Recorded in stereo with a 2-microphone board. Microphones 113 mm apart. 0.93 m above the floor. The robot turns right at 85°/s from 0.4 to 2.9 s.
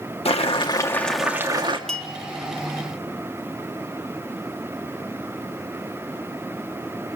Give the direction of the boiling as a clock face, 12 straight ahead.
8 o'clock.